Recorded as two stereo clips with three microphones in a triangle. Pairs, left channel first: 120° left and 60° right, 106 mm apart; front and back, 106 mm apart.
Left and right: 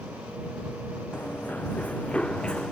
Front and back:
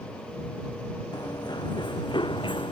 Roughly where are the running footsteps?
Ahead left.